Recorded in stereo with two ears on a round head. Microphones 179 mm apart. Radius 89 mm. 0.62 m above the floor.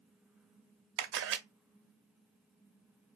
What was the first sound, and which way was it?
A camera shutter, 60° right (ahead or behind).